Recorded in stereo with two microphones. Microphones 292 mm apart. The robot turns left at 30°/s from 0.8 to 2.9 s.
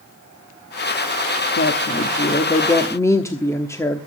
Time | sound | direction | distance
1.6 | a woman speaking | 50° left | 1.1 m